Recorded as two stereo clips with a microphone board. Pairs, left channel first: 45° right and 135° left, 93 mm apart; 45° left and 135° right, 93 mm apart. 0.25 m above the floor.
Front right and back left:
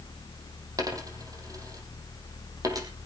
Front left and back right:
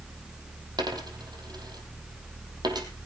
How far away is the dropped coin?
About 4.5 m.